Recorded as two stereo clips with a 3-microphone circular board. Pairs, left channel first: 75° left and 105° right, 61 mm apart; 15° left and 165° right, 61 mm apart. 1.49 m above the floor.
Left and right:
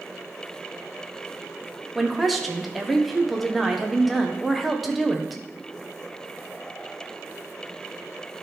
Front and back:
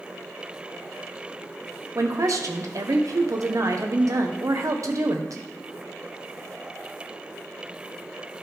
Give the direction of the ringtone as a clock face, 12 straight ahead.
No ringtone in this recording.